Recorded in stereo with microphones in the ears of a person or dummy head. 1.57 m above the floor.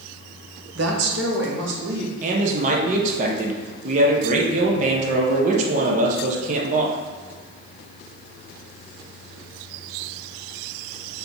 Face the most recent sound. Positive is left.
turn(degrees=-40)  # may be behind; listen again after turning